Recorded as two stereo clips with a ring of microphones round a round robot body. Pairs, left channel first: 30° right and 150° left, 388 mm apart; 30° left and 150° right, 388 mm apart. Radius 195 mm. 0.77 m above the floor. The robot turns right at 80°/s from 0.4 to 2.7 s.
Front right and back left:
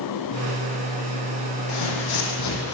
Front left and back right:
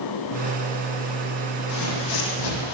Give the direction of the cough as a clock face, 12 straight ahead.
No cough in this recording.